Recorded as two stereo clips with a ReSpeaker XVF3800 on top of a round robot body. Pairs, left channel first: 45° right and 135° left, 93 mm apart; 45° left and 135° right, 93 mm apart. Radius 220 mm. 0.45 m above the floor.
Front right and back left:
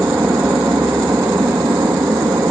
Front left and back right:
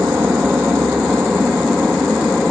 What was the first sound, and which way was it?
An aircraft, 170° left.